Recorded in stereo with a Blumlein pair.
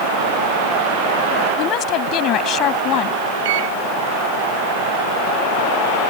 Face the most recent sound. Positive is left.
turn(degrees=-55)